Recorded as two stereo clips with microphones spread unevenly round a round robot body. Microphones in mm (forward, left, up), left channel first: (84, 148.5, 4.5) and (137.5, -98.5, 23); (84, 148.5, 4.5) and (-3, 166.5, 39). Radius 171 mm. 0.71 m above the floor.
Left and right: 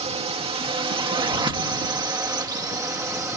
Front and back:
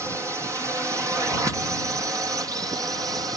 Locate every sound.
0.0 s a drone: 120° right; by 3.4 s 150° right